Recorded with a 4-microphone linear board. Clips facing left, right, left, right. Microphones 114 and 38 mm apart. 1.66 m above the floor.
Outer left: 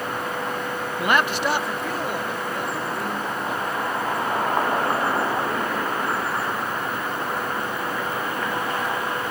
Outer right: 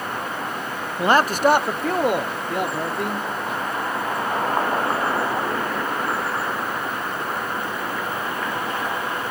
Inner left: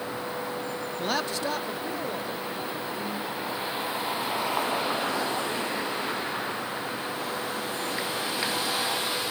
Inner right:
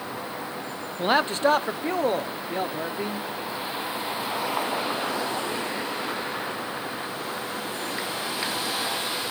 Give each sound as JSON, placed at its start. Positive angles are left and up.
{"t": 1.0, "sound": "a man speaking", "side_deg": -25, "distance_m": 0.6}